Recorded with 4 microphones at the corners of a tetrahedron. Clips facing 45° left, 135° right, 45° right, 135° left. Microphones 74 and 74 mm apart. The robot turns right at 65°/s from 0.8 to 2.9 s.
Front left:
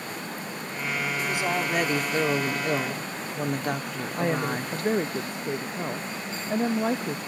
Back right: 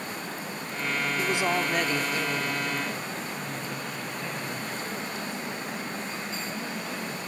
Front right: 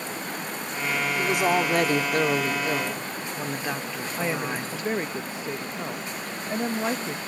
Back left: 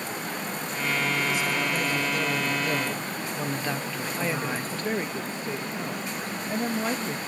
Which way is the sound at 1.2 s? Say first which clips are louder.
Back right 2 dB, front right 4 dB; 80° right.